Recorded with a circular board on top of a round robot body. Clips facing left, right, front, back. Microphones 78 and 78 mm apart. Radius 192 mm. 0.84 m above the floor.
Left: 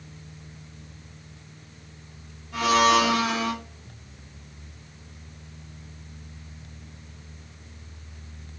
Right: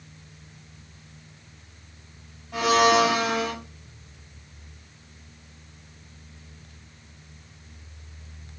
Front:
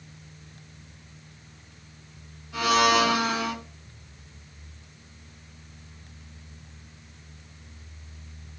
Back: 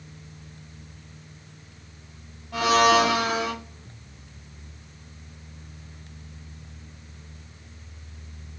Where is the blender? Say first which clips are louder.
Right 1 dB, back 3 dB; 140° right, 0.9 m.